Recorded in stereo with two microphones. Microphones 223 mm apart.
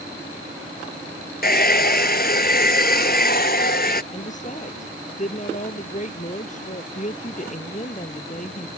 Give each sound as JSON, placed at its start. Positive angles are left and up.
{"t": 1.4, "sound": "a hair dryer", "side_deg": 45}
{"t": 4.1, "sound": "a woman speaking", "side_deg": 35}